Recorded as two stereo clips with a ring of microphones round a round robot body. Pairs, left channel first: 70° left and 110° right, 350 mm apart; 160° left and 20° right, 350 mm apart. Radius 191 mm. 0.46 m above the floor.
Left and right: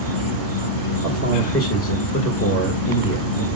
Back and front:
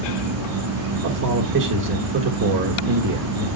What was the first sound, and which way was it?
An insect, 30° left.